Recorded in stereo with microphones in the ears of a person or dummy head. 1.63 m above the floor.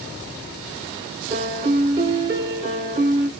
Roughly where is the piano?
Right.